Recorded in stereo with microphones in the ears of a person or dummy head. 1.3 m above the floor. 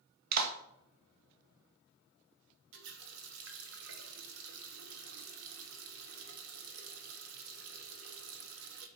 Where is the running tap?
70° right (ahead or behind), 1.0 m.